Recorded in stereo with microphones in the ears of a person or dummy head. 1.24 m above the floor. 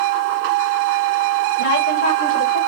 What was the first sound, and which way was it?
A woman speaking, 70° left (ahead or behind).